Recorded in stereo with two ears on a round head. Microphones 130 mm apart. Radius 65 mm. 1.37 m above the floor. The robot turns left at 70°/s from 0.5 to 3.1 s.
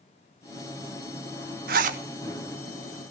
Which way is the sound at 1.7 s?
75° right (ahead or behind).